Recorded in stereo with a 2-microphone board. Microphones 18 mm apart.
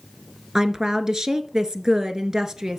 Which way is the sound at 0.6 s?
35° right (ahead or behind).